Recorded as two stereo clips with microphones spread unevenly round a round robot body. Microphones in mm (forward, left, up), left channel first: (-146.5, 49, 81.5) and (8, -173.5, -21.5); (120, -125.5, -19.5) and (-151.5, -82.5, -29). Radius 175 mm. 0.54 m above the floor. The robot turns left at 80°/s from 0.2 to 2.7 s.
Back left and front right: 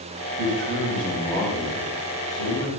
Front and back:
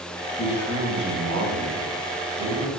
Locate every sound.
0.4 s a man speaking: 75° right, 4.5 m; by 2.7 s 100° left, 4.5 m